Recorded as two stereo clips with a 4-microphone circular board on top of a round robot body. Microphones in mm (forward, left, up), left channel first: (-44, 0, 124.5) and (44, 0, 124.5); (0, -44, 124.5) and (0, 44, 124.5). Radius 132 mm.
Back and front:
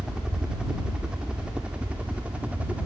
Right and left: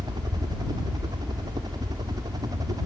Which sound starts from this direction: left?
A helicopter, at 0.0 s.